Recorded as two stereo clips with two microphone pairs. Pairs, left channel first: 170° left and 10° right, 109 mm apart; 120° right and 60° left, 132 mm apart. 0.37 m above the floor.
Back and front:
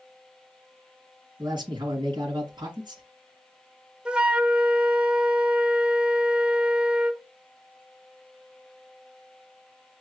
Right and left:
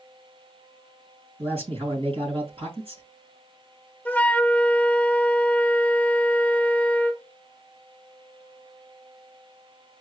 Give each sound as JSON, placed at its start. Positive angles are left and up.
{"t": 1.4, "sound": "a man speaking", "azimuth_deg": 25, "distance_m": 3.5}
{"t": 4.0, "sound": "a flute", "azimuth_deg": -70, "distance_m": 0.5}